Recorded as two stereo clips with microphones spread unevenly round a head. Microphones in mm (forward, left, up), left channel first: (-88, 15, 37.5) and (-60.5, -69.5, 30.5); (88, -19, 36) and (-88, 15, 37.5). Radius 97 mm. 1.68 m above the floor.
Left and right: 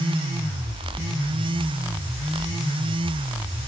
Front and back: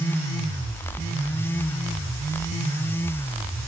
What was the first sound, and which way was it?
Only background noise.